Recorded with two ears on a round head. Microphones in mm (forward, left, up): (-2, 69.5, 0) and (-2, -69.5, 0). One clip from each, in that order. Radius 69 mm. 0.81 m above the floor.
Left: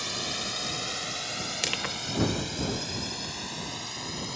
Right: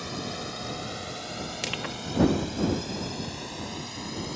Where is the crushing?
40° left (ahead or behind).